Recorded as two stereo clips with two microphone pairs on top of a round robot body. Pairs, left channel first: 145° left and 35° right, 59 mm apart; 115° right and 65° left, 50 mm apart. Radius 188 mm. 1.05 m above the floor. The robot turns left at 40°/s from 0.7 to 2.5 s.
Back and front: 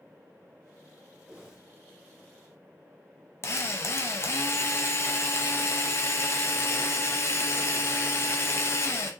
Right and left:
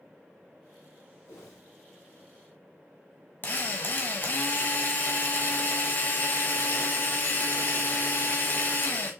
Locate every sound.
1.2 s a whoosh: 90° right, 0.9 m; by 1.6 s 105° right, 0.9 m
3.4 s a drill: 170° right, 1.0 m